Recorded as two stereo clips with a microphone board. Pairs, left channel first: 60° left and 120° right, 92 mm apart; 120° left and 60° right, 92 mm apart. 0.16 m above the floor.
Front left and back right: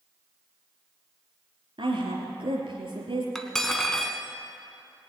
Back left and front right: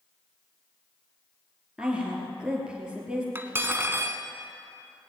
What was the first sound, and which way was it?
A woman speaking, 140° right.